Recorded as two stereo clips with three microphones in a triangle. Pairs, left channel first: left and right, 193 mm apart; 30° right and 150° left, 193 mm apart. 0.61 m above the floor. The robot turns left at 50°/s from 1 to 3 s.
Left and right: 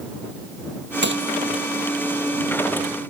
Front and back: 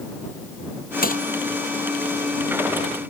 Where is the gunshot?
70° right; by 1.2 s 80° right.